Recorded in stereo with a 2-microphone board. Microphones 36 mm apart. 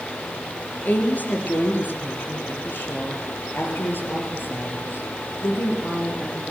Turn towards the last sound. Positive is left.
turn(degrees=75)  # may be behind; listen again after turning